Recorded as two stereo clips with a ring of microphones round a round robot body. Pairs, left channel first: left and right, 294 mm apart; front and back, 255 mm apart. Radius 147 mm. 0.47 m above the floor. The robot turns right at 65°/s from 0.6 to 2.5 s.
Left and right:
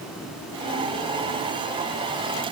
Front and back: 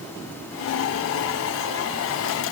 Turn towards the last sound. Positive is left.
No sound to turn to.